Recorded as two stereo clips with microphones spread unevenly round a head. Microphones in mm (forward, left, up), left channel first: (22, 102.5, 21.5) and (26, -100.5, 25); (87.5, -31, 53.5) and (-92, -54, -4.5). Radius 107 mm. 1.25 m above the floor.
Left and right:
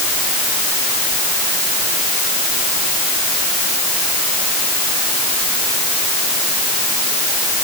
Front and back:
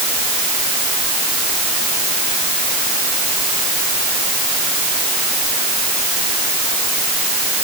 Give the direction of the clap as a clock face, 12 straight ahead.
No clap in this recording.